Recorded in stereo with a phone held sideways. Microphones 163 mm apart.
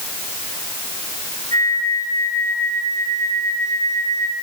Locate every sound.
1.5 s a flute: 50° right (ahead or behind), 5 m